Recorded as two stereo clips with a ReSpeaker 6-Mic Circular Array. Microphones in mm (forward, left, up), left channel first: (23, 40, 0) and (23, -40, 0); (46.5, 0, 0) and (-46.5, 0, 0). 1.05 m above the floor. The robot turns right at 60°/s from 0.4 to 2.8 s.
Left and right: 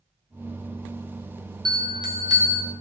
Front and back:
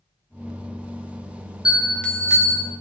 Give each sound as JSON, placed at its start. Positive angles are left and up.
{"t": 1.6, "sound": "a bell", "azimuth_deg": -100, "distance_m": 1.3}